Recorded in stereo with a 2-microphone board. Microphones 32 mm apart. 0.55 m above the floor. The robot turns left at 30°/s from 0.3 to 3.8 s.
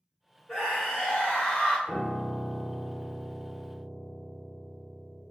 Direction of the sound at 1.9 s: 165° right.